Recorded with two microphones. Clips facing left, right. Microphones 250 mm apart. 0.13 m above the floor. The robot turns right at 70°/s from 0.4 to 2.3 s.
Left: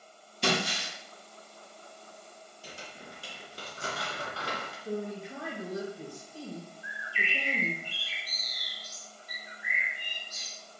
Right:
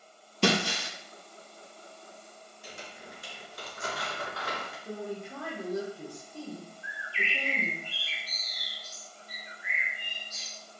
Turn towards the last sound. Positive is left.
turn(degrees=-25)  # may be behind; listen again after turning